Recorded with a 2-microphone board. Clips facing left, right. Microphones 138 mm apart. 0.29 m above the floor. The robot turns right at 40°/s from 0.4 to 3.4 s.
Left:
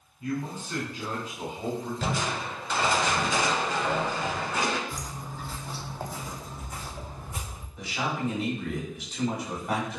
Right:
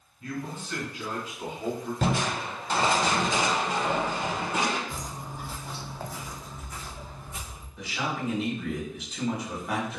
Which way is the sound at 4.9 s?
35° right (ahead or behind).